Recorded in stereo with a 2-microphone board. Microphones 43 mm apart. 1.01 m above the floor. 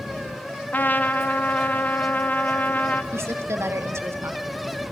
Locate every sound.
0.7 s a trumpet: 40° left (ahead or behind), 0.9 m
3.1 s a woman speaking: 75° right (ahead or behind), 1.7 m